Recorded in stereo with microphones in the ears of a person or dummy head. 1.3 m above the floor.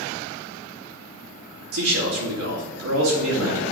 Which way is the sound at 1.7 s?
85° right.